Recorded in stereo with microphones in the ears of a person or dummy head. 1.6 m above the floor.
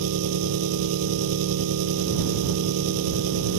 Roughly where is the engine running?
Right.